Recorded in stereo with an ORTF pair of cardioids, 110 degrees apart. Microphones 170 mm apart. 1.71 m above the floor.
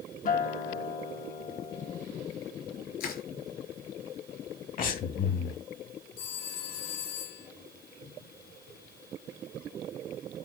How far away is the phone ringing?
About 7 m.